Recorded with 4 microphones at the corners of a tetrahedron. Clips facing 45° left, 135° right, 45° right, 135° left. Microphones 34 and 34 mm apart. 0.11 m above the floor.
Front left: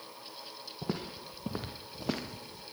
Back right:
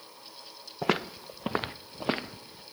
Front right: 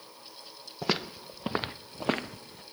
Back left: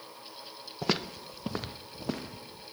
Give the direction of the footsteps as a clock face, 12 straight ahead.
4 o'clock.